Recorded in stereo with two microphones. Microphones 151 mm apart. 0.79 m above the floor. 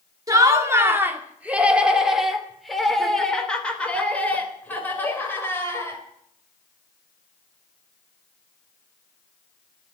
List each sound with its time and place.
0.3 s laughter: 25° right (ahead or behind), 1.9 m; by 6.0 s 15° left (ahead or behind), 4 m